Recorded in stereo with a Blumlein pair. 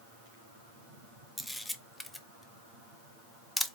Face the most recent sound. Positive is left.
turn(degrees=5)